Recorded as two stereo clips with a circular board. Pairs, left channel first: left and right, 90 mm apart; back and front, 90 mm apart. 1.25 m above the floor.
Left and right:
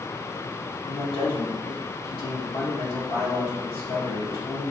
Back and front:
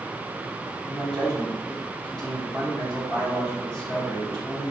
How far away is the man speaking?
About 1.7 m.